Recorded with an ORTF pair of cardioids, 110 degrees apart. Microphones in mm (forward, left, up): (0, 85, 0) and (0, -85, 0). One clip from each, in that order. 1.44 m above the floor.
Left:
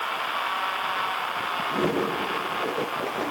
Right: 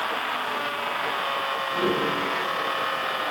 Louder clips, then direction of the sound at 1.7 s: Right 1 dB; 65° left.